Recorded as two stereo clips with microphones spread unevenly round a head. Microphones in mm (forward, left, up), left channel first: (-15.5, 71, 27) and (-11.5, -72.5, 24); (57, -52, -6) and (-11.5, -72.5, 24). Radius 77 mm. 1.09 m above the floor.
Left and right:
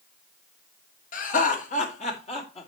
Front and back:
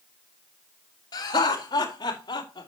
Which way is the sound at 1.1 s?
55° left.